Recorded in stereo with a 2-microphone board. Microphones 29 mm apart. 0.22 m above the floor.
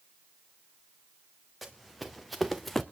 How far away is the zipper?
I don't hear a zipper.